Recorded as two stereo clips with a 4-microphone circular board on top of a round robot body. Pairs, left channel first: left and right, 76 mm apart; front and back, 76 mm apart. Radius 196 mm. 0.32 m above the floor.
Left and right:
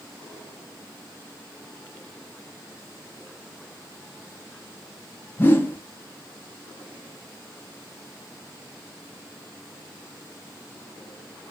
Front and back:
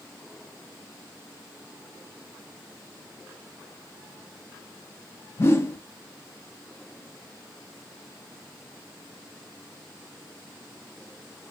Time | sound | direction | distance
5.4 | a whoosh | 40° left | 0.9 m